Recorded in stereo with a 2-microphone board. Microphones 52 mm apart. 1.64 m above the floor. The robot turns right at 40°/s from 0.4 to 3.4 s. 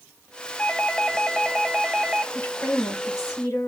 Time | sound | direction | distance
0.6 | a doorbell | 150° left | 0.7 m
2.3 | a woman speaking | 30° left | 1.8 m